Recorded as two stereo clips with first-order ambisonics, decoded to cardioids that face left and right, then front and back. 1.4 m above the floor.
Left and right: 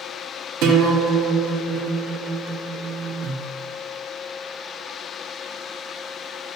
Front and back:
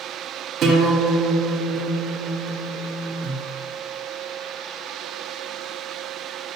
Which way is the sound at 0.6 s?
125° right.